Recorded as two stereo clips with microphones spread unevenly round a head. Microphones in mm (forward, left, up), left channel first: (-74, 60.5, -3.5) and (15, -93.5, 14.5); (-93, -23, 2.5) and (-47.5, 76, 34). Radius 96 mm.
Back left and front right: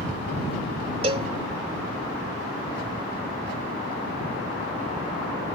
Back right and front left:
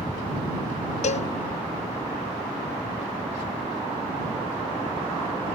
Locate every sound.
1.0 s a cowbell: 120° right